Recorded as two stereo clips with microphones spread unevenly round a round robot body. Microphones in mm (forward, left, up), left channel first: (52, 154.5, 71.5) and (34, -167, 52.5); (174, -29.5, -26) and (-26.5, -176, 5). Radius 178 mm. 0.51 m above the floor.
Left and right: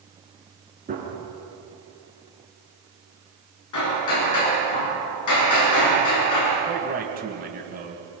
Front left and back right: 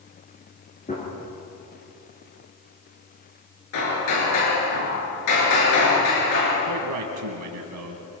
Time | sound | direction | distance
0.9 | a gunshot | 25° right | 7 m
3.7 | hammering | 50° left | 7.5 m
6.7 | a man speaking | 160° right | 3 m